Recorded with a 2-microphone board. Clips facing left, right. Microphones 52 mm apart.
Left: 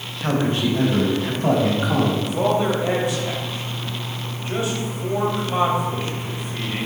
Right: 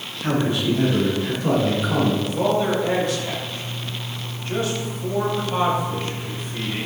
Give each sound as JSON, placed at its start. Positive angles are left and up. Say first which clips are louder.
{"t": 0.2, "sound": "a man speaking", "louder": "left 1 dB", "side_deg": 35, "distance_m": 3.5}
{"t": 2.2, "sound": "a man speaking", "louder": "left 1 dB", "side_deg": 15, "distance_m": 2.5}